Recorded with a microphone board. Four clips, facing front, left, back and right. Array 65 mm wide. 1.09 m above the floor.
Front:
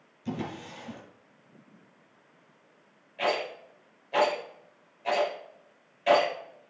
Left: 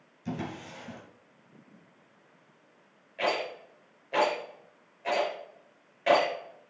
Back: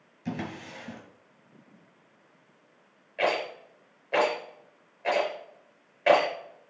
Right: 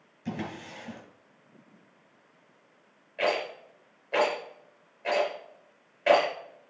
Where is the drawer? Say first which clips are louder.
Even, even; 145° right, 3.5 m.